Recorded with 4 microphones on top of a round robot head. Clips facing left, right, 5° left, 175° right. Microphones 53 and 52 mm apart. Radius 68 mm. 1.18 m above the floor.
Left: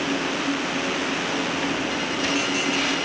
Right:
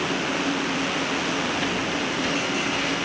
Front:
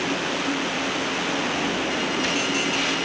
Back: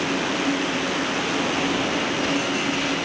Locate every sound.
Only background noise.